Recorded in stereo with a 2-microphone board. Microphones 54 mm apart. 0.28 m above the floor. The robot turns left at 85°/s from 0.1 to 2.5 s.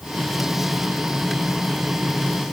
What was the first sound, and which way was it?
Only background noise.